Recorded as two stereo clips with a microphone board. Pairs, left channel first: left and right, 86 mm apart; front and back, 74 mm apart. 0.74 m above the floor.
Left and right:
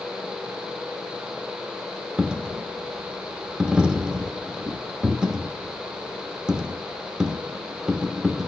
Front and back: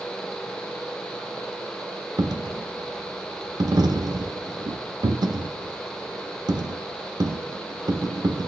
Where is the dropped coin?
170° right, 0.6 m.